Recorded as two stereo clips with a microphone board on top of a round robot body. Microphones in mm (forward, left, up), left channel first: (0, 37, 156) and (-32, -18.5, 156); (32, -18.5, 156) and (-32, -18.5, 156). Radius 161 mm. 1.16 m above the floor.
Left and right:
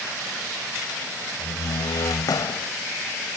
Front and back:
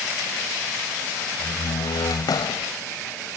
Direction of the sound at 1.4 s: 25° left.